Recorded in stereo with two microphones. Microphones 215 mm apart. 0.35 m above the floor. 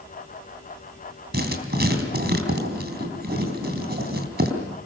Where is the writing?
50° right (ahead or behind), 3.5 m.